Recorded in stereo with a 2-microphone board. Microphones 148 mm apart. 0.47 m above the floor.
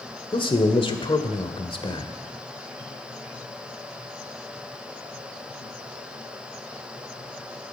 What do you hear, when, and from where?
0.3 s a man speaking: 35° left (ahead or behind), 1.6 m